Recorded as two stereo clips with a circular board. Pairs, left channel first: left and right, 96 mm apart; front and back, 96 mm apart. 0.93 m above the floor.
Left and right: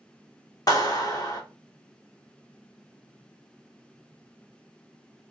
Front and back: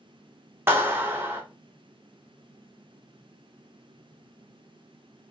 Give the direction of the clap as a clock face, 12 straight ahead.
8 o'clock.